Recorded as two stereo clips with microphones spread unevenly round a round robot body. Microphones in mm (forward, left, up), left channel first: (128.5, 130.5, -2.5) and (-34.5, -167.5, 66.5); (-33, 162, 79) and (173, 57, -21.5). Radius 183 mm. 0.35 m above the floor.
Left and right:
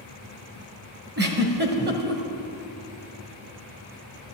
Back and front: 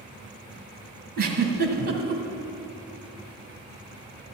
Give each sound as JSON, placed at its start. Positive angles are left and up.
{"t": 1.2, "sound": "a giggle", "azimuth_deg": -55, "distance_m": 1.9}